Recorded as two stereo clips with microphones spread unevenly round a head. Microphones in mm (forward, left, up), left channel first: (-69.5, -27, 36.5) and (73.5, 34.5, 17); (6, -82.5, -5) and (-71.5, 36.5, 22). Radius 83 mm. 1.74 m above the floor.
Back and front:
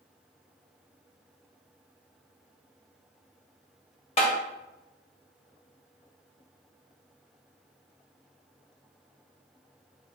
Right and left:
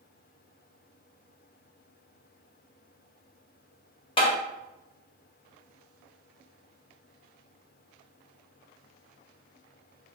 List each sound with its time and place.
4.2 s tapping: 110° right, 2.0 m